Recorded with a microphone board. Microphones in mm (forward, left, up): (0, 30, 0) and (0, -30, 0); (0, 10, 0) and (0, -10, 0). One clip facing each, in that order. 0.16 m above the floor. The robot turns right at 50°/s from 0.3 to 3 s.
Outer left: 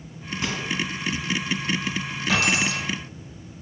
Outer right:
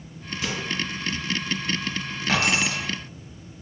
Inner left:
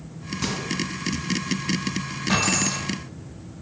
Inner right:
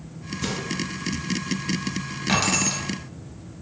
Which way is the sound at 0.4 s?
30° left (ahead or behind).